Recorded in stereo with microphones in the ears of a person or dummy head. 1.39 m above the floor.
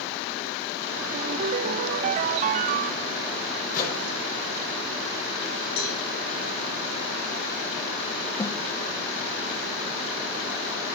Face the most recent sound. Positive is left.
turn(degrees=15)  # may be behind; listen again after turning